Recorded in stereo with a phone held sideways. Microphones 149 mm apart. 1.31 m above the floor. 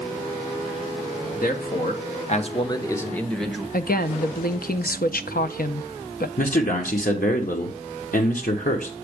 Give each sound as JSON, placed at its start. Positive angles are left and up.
{"t": 1.4, "sound": "a man speaking", "side_deg": 80, "distance_m": 1.0}
{"t": 3.7, "sound": "a woman speaking", "side_deg": 75, "distance_m": 0.5}
{"t": 6.4, "sound": "a man speaking", "side_deg": 65, "distance_m": 1.0}